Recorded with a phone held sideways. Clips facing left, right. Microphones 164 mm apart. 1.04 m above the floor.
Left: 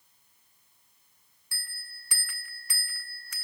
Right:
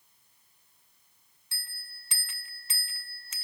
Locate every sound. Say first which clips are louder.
1.5 s a bell: left 3 dB; 25° right (ahead or behind), 0.6 m